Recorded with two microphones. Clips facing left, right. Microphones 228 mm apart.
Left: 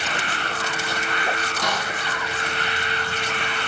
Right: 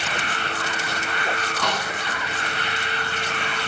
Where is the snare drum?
15° left (ahead or behind), 1.7 m.